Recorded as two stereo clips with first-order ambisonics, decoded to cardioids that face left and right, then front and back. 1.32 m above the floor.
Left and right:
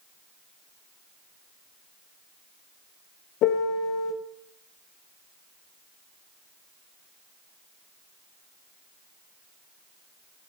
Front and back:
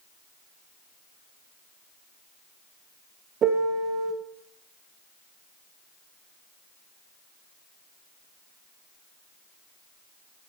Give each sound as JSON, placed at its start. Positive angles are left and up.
{"t": 3.4, "sound": "a piano", "azimuth_deg": 125, "distance_m": 1.0}